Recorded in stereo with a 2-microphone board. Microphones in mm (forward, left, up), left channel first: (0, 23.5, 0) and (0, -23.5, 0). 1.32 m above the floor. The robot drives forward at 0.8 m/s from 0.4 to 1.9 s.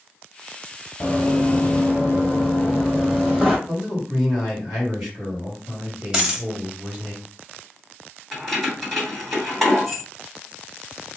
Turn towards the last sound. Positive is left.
turn(degrees=5)  # may be behind; listen again after turning